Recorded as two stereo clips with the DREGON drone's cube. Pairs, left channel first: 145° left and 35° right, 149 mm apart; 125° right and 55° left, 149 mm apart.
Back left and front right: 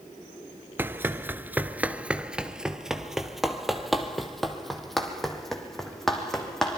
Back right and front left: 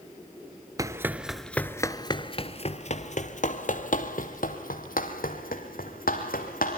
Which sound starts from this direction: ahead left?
Running footsteps, at 0.8 s.